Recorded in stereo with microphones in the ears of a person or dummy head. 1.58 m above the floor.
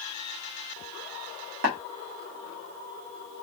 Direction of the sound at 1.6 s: 55° right (ahead or behind).